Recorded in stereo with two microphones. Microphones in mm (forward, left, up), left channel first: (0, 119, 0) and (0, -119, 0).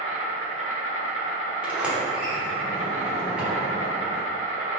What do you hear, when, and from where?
0.0 s an insect: 60° left (ahead or behind), 0.8 m
1.6 s a sliding door: 5° right (ahead or behind), 1.0 m